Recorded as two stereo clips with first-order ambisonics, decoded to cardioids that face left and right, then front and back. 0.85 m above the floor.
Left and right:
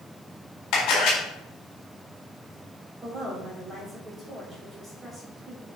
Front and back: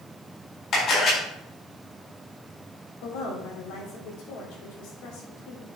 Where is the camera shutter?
50° left, 4 m.